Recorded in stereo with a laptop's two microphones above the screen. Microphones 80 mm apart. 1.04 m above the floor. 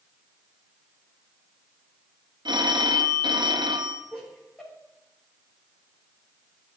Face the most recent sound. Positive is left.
turn(degrees=10)  # may be behind; listen again after turning